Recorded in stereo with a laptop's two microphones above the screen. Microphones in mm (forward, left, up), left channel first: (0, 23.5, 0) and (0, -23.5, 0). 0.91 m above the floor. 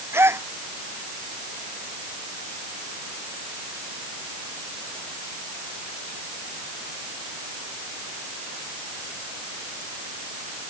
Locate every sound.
0.1 s a gasp: 60° right (ahead or behind)